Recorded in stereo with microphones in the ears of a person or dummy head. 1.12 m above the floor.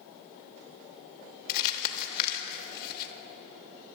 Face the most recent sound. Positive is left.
turn(degrees=45)  # may be behind; listen again after turning